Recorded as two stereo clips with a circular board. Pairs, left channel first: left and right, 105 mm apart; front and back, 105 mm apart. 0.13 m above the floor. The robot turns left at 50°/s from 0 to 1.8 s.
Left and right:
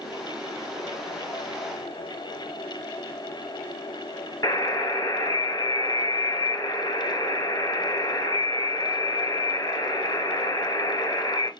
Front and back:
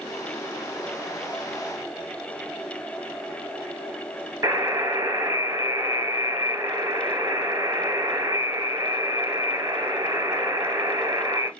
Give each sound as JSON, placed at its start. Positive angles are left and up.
{"t": 4.4, "sound": "a buzzer", "azimuth_deg": 135, "distance_m": 1.0}